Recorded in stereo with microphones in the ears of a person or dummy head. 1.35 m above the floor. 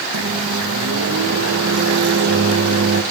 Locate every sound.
0.1 s a microwave: 70° right (ahead or behind), 1.2 m